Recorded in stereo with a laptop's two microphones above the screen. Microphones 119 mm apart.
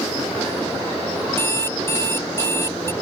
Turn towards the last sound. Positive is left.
turn(degrees=20)  # may be behind; listen again after turning